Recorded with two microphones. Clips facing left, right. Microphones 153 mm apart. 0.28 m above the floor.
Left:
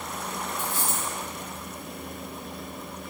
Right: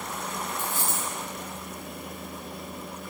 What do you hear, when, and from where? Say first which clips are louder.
0.6 s a dropped coin: left 1 dB; 10° left (ahead or behind), 1.5 m